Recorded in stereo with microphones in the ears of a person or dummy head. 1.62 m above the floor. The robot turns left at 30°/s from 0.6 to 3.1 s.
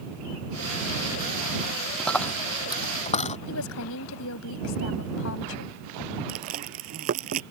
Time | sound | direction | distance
2.0 | a dropped coin | 5° right (ahead or behind) | ?
3.5 | a woman speaking | 70° left (ahead or behind) | ?
6.3 | chewing | 45° right (ahead or behind) | ?